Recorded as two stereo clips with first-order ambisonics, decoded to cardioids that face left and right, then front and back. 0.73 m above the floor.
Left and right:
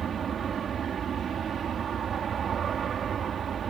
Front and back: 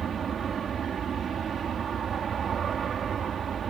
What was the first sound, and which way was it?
An aircraft, 135° right.